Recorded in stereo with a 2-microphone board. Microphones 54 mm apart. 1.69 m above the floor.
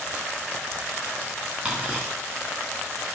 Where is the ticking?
30° right (ahead or behind), 3 m.